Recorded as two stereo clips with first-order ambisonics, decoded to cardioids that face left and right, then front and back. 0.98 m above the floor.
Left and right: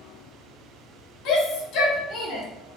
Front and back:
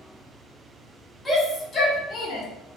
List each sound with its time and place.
1.2 s a shout: 80° left, 1.0 m; by 2.5 s 35° left, 1.0 m